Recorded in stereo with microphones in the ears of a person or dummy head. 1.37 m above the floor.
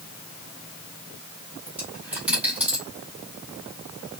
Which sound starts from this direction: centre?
A dropped coin, at 1.7 s.